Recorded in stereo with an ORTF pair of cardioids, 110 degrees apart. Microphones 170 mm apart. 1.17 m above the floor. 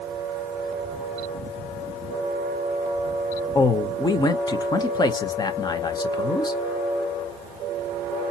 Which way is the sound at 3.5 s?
25° left.